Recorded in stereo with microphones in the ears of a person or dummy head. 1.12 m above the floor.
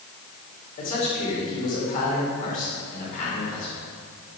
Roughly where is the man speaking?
Left.